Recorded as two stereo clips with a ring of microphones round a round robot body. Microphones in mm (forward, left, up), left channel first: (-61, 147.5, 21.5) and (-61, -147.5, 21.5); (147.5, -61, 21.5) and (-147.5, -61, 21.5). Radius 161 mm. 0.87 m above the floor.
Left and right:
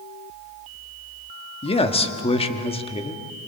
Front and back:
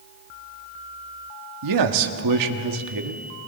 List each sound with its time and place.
1.6 s a man speaking: 160° left, 1.4 m